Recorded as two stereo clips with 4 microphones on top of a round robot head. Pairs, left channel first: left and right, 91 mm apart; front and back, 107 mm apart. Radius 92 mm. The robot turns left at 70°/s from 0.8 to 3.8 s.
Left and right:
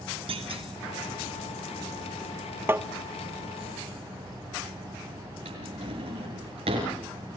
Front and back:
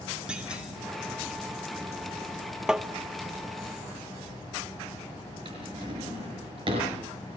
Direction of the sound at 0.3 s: 95° right.